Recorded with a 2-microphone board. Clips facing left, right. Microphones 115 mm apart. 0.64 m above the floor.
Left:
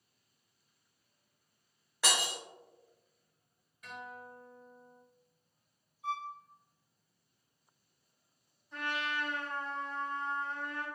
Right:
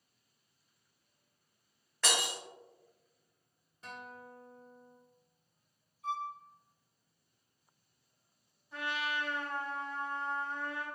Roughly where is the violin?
Centre.